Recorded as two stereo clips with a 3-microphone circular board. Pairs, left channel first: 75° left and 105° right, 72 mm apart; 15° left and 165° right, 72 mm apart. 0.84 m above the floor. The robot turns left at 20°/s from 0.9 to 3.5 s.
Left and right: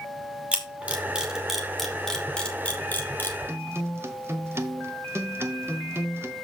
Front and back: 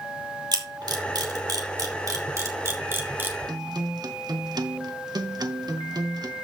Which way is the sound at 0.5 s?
Straight behind.